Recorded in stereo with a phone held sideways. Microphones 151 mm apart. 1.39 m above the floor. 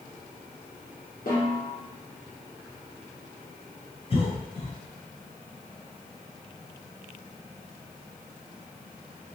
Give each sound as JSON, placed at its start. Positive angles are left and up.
{"t": 1.3, "sound": "a snare drum", "side_deg": 75, "distance_m": 1.4}
{"t": 4.1, "sound": "a cough", "side_deg": 40, "distance_m": 1.1}